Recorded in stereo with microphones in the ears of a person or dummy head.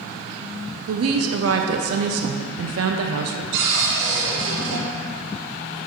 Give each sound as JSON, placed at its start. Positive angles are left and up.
{"t": 0.9, "sound": "a woman speaking", "side_deg": -65, "distance_m": 0.5}
{"t": 3.5, "sound": "a cupboard door", "side_deg": -70, "distance_m": 1.9}